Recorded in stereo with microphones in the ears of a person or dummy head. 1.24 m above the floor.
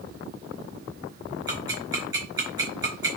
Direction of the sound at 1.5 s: 20° right (ahead or behind).